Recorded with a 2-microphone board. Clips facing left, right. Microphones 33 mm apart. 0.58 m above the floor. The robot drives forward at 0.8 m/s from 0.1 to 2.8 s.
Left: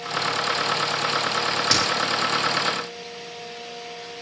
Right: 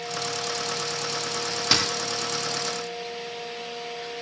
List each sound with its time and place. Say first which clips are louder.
1.7 s a dropped coin: right 1 dB; 10° right (ahead or behind), 6 m